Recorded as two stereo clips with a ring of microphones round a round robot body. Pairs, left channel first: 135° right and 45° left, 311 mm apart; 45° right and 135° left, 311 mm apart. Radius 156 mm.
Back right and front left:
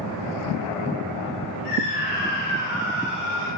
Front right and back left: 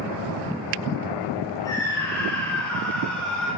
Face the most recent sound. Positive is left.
turn(degrees=-130)